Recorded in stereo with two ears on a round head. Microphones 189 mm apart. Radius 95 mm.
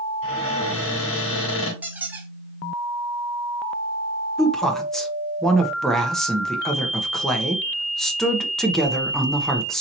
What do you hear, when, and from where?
0.2 s a cupboard door: 65° left (ahead or behind), 2.5 m
1.8 s a squeak: 10° right (ahead or behind), 0.9 m
4.4 s a woman speaking: centre (ahead or behind), 0.9 m